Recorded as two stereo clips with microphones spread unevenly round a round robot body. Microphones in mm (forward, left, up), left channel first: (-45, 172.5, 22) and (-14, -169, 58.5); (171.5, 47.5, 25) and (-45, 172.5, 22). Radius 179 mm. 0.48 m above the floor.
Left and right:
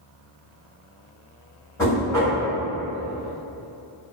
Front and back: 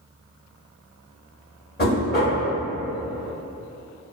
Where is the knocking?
20° left, 1.3 m.